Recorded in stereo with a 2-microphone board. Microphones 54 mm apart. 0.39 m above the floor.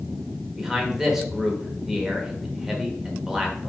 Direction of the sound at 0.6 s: 5° right (ahead or behind).